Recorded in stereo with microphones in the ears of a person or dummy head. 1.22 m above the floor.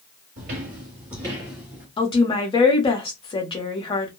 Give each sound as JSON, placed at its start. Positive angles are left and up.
{"t": 0.4, "sound": "footsteps", "side_deg": -35, "distance_m": 1.4}
{"t": 2.0, "sound": "a woman speaking", "side_deg": 20, "distance_m": 0.7}